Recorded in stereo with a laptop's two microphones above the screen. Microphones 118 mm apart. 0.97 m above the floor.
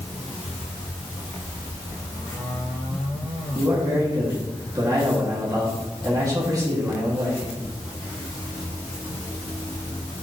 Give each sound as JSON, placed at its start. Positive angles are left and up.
{"t": 3.5, "sound": "a man speaking", "side_deg": -30, "distance_m": 2.0}